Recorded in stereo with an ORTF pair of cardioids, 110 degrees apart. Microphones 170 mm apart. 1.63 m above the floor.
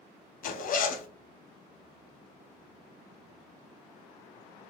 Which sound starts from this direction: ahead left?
A zipper, at 0.4 s.